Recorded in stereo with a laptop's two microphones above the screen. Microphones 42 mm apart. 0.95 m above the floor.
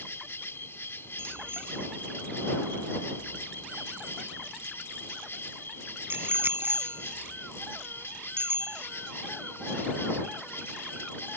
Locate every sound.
0.0 s an insect: 85° left
1.2 s a bicycle bell: 65° right (ahead or behind)